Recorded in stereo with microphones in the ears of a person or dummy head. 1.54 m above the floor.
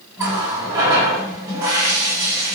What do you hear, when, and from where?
0.2 s a running tap: 15° right (ahead or behind), 1.2 m